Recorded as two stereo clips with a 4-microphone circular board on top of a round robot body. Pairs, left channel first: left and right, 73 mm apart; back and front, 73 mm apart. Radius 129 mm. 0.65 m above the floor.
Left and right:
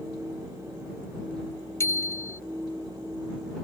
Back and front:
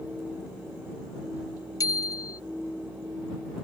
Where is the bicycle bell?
140° left.